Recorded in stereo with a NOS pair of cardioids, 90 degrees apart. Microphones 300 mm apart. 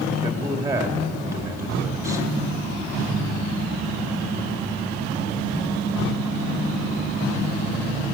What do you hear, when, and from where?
0.2 s a man speaking: 10° right, 3 m